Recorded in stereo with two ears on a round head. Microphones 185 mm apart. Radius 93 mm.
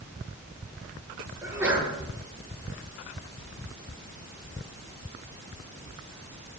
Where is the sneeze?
5° right (ahead or behind), 7.5 m.